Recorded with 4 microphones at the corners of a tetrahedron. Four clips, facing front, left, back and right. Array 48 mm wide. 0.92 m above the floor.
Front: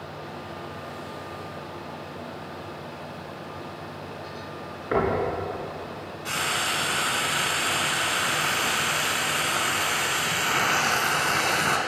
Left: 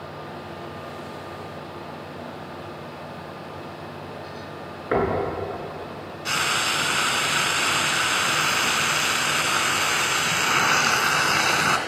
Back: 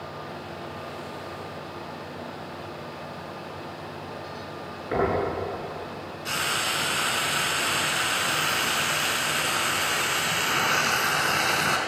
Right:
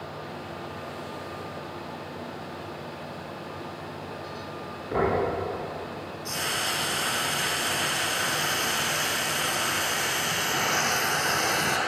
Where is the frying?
85° left, 3.5 m.